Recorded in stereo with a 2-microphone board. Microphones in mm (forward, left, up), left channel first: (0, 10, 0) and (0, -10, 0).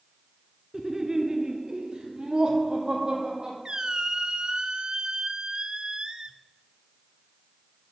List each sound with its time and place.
0.7 s laughter: 20° right (ahead or behind), 1.1 m; by 3.5 s 35° right (ahead or behind), 4.5 m
3.6 s a squeak: 35° right (ahead or behind), 0.7 m